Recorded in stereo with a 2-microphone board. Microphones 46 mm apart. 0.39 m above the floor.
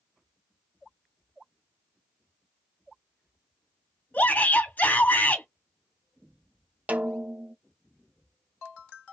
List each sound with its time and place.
4.1 s a shout: 35° left (ahead or behind), 1.7 m
6.9 s a snare drum: 30° right (ahead or behind), 0.5 m